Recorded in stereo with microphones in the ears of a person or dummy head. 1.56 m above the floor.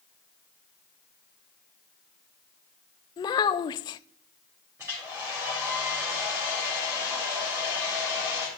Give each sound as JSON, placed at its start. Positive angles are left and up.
{"t": 3.2, "sound": "a child speaking", "side_deg": 25, "distance_m": 0.5}
{"t": 4.8, "sound": "a hair dryer", "side_deg": -5, "distance_m": 5.0}